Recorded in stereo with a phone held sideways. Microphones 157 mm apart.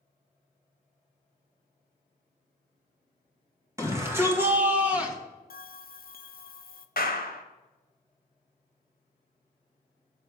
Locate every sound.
3.8 s a shout: 20° right (ahead or behind), 2 m; by 5.2 s 5° right (ahead or behind), 1.4 m
5.5 s a bell: 70° left (ahead or behind), 0.5 m
7.0 s a clap: 70° left (ahead or behind), 1.0 m